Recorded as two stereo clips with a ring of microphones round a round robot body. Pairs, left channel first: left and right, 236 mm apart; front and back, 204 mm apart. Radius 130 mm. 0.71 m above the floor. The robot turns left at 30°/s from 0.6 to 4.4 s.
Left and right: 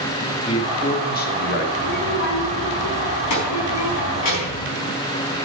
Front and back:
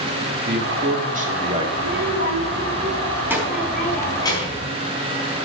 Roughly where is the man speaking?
Behind left.